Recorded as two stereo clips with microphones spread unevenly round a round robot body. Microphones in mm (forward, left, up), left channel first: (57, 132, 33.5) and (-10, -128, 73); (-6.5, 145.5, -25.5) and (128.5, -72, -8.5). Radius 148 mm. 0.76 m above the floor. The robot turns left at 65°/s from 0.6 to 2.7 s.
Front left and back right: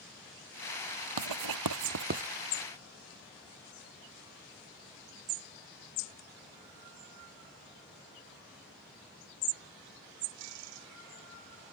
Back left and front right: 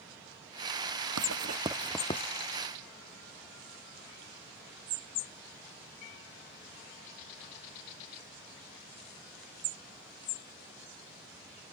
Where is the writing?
100° right; by 2.3 s 175° right.